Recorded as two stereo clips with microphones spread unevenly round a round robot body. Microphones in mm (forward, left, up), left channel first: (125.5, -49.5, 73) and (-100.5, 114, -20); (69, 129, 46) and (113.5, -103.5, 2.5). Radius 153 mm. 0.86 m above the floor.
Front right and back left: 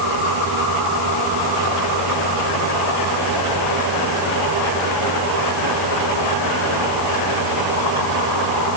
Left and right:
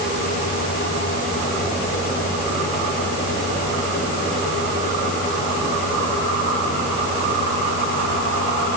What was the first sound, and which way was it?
Only background noise.